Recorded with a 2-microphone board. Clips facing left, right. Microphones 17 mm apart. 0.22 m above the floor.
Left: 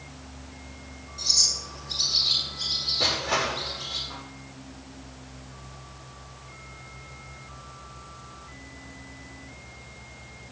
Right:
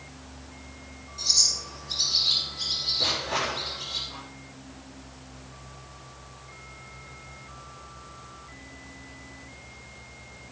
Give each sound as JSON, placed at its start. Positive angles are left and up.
{"t": 1.2, "sound": "a bird", "side_deg": 10, "distance_m": 8.0}
{"t": 3.0, "sound": "crushing", "side_deg": 85, "distance_m": 8.5}